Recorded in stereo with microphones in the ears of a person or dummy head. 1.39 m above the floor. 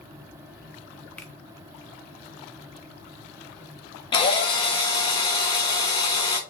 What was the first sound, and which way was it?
A finger snap, 10° left (ahead or behind).